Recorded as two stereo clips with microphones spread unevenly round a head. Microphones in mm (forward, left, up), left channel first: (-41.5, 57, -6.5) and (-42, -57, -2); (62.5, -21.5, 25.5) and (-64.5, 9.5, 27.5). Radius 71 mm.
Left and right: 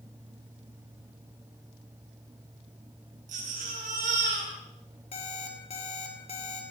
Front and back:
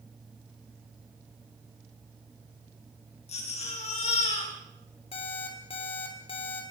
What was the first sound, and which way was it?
A baby crying, 55° right.